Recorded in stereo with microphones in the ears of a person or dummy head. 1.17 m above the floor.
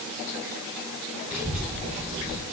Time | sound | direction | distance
1.3 | a child speaking | 5° right (ahead or behind) | 0.6 m